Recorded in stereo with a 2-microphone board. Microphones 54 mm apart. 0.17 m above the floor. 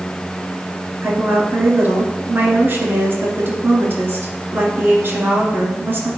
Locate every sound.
1.0 s a woman speaking: 40° right (ahead or behind), 2 m